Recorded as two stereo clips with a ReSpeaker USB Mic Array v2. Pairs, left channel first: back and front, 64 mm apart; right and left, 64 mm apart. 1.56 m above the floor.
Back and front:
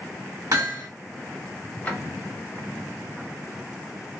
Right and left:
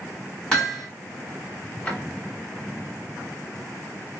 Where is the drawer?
135° right, 1.0 m.